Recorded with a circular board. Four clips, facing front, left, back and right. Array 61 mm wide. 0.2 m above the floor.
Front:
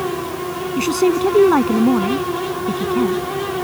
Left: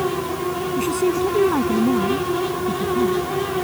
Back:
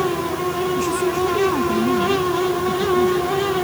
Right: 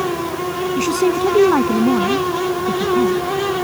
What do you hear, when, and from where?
0.8 s a woman speaking: 30° right